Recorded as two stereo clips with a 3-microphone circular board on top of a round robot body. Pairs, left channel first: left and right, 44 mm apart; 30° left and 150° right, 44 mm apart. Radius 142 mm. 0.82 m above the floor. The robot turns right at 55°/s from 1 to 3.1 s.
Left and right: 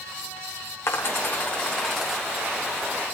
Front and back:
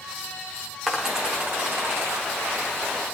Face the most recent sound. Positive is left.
turn(degrees=-120)